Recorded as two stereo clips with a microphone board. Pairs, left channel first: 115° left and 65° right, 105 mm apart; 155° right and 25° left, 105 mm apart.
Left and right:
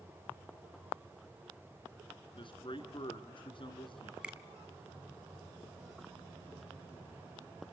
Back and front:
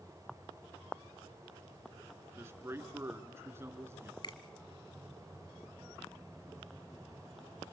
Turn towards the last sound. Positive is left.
turn(degrees=-145)